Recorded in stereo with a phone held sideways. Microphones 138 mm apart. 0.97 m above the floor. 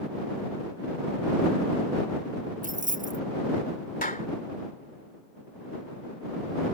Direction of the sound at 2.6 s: 70° right (ahead or behind).